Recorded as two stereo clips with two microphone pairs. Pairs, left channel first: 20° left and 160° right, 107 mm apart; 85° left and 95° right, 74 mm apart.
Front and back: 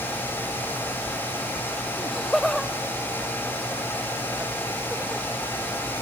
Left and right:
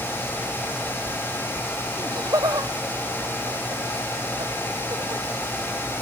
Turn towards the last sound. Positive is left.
turn(degrees=-70)